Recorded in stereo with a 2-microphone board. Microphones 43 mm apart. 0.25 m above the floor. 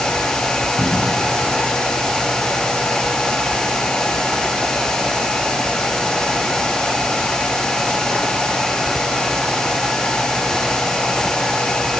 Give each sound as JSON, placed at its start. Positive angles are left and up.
{"t": 0.8, "sound": "a cupboard door", "side_deg": 40, "distance_m": 2.5}